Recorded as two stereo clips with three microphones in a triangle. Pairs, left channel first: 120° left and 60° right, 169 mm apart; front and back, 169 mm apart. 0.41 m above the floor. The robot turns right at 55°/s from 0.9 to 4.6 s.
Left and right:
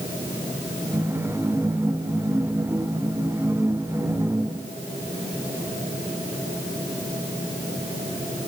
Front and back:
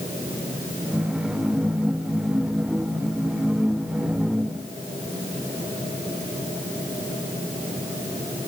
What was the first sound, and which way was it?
Only background noise.